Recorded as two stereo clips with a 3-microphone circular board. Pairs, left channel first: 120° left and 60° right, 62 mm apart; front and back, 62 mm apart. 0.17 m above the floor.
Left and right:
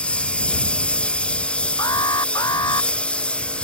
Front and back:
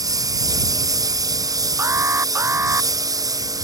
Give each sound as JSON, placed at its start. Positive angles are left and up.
{"t": 0.0, "sound": "a lawn mower", "azimuth_deg": -170}
{"t": 1.8, "sound": "an alarm", "azimuth_deg": 130}